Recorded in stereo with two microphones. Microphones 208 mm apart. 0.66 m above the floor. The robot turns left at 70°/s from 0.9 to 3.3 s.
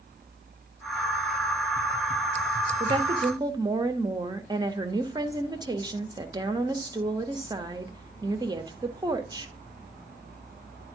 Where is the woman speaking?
30° right (ahead or behind), 0.8 m; by 9.5 s 20° right (ahead or behind), 0.8 m.